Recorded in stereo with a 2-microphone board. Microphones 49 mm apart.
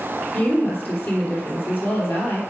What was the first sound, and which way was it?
A woman speaking, 50° left (ahead or behind).